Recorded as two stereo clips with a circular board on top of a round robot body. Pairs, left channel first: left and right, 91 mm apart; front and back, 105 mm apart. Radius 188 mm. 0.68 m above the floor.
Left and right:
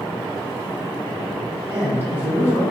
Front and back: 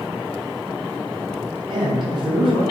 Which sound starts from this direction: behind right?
A man speaking, at 1.7 s.